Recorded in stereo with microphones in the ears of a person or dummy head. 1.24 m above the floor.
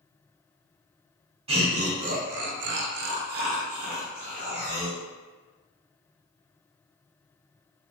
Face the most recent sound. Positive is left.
turn(degrees=-35)  # may be behind; listen again after turning